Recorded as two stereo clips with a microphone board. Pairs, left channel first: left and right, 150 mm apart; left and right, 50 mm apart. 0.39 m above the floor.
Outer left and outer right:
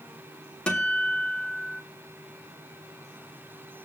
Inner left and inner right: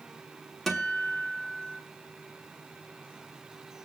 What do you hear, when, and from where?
0.7 s a guitar: 5° left (ahead or behind), 1.8 m